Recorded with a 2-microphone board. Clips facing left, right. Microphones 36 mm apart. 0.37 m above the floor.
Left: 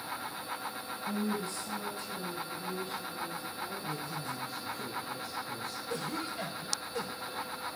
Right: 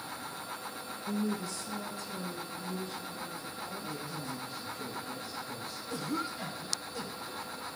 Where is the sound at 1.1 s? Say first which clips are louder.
Even; 40° left (ahead or behind), 3 m; by 4.8 s 75° left (ahead or behind), 4.5 m.